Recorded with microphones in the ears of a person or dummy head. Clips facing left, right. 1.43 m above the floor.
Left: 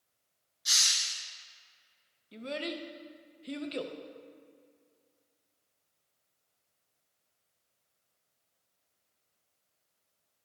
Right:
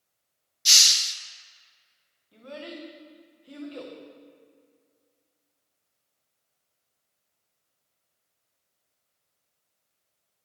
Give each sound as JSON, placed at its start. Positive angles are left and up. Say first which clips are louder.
{"t": 0.7, "sound": "a hiss", "louder": "right 6 dB", "side_deg": -40, "distance_m": 0.5}
{"t": 2.3, "sound": "a child speaking", "louder": "left 3 dB", "side_deg": 30, "distance_m": 0.6}